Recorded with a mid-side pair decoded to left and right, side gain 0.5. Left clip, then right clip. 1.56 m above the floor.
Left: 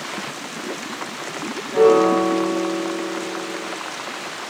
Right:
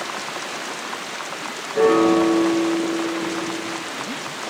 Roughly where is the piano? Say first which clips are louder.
Left 2 dB; ahead left.